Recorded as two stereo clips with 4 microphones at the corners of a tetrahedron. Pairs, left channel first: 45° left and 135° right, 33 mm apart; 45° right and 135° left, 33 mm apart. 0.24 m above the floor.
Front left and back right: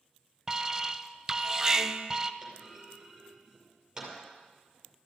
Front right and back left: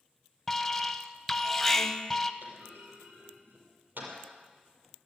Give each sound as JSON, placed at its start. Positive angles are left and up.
{"t": 0.5, "sound": "an alarm", "azimuth_deg": -95, "distance_m": 0.7}
{"t": 2.4, "sound": "a clunk", "azimuth_deg": 150, "distance_m": 6.0}